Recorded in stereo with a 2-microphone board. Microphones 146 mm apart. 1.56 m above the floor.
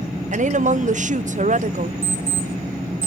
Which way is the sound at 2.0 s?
50° left (ahead or behind).